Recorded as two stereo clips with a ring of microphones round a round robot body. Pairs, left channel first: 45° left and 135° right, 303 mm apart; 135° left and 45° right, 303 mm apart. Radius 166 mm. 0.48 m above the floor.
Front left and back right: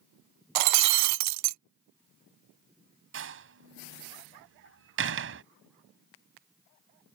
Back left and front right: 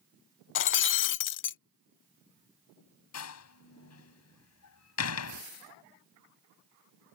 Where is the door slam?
175° left.